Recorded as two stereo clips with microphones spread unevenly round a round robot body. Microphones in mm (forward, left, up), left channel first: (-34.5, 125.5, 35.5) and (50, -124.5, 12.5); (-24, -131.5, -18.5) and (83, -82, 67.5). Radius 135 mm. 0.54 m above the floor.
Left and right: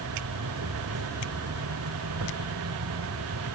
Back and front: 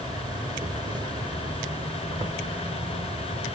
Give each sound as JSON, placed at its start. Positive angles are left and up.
{"t": 0.0, "sound": "an insect", "azimuth_deg": -50}